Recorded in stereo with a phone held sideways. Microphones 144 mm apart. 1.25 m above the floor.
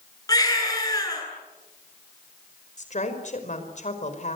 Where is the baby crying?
25° left (ahead or behind), 9 m.